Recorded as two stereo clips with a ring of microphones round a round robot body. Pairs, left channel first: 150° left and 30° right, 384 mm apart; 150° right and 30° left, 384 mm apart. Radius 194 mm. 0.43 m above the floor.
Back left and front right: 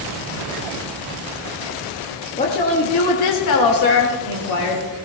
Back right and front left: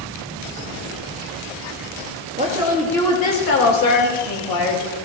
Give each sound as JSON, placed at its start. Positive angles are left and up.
{"t": 2.4, "sound": "a woman speaking", "azimuth_deg": 90, "distance_m": 1.6}